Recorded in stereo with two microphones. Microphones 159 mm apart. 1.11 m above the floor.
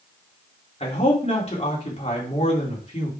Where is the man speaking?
40° left (ahead or behind), 3 m.